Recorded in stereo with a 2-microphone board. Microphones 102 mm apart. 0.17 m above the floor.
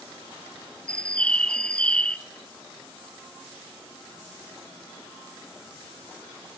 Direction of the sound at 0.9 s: 10° left (ahead or behind).